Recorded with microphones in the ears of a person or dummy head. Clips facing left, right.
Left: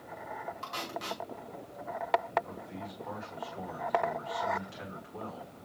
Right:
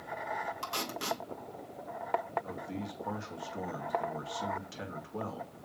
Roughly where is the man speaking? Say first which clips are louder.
Right 3 dB; right.